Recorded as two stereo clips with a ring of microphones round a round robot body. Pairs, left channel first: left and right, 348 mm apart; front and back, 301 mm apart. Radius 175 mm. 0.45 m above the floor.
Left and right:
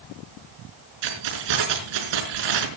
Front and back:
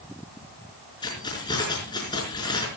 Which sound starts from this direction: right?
Keys jangling, at 1.0 s.